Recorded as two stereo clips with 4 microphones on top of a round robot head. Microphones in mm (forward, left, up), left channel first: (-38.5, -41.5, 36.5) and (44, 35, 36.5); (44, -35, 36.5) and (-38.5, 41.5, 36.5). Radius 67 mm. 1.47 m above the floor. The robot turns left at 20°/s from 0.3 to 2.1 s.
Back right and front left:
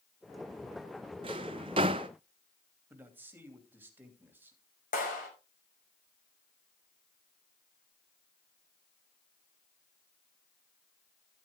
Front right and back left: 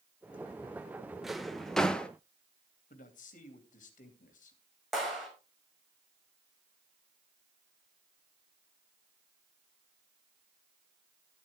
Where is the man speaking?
30° right, 2.5 m.